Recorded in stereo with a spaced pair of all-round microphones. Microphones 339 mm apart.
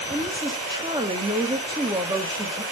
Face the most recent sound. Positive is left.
turn(degrees=-15)  # may be behind; listen again after turning